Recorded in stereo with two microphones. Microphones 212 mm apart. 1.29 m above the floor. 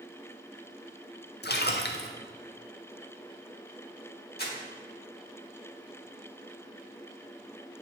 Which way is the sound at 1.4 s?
50° left (ahead or behind).